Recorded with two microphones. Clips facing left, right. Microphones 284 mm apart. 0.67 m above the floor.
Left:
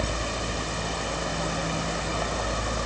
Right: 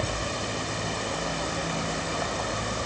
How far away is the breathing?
I don't hear breathing.